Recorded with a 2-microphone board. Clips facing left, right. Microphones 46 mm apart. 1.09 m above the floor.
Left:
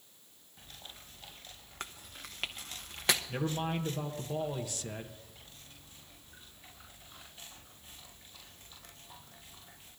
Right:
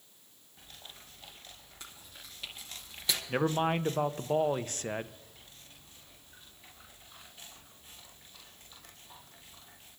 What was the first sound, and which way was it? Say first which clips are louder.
Chewing: left 7 dB; 60° left (ahead or behind).